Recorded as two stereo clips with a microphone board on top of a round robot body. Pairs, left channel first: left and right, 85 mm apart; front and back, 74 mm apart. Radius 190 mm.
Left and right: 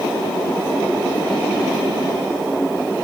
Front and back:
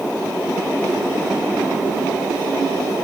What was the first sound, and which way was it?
Only background noise.